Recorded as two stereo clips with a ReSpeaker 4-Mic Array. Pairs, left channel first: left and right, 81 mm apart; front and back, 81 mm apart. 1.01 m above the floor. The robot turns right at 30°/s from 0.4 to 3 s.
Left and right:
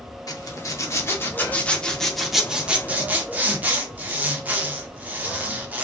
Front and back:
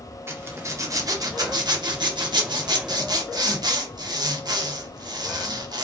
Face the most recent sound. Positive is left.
turn(degrees=-155)